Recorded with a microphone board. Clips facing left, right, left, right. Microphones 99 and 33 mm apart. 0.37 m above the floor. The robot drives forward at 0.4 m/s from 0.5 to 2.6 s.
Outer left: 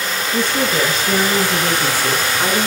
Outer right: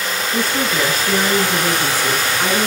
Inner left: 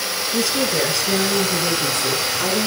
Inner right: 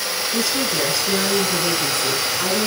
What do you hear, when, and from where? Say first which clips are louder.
0.3 s a woman speaking: outer left 2 dB, inner left 2 dB; 10° right (ahead or behind), 4.5 m; by 2.7 s 15° right (ahead or behind), 3.5 m